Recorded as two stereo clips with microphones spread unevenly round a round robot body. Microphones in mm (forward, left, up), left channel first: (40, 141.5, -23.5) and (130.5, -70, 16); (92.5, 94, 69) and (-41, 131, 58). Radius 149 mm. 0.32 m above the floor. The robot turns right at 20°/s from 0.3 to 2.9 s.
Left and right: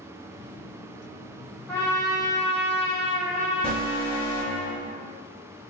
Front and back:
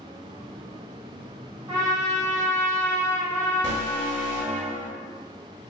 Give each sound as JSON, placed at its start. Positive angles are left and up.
{"t": 1.7, "sound": "a trumpet", "azimuth_deg": -150, "distance_m": 1.5}
{"t": 3.6, "sound": "an alarm", "azimuth_deg": -155, "distance_m": 1.9}